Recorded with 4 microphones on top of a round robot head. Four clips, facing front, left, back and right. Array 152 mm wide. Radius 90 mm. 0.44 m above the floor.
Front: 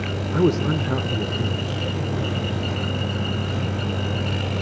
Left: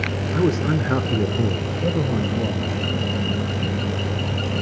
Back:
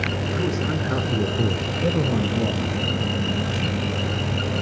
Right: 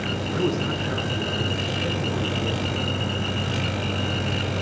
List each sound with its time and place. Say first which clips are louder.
0.3 s a man speaking: left 5 dB, front 8 dB; 25° left, 1.5 m; by 2.7 s 145° left, 3 m